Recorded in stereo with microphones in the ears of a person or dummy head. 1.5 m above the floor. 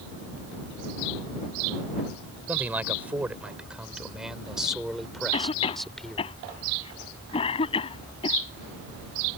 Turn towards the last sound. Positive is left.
turn(degrees=35)  # may be behind; listen again after turning